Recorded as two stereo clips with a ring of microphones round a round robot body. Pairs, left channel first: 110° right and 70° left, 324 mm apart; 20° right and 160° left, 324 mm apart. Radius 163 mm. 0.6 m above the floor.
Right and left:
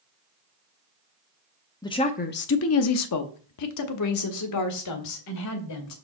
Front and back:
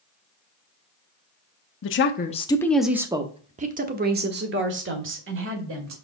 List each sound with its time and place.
1.8 s a woman speaking: 40° right, 0.7 m; by 6.0 s 150° right, 2 m